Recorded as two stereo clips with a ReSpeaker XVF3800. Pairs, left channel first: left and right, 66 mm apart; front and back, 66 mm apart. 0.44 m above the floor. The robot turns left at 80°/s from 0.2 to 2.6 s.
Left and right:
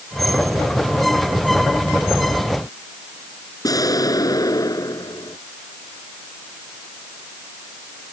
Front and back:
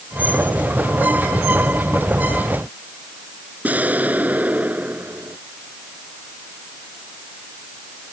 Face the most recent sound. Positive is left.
turn(degrees=115)